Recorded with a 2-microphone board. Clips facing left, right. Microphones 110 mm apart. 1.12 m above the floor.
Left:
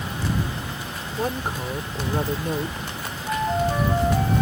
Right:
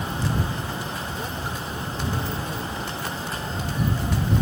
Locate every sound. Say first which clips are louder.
1.2 s a woman speaking: left 4 dB; 50° left (ahead or behind)
3.3 s a flute: left 8 dB; 75° left (ahead or behind)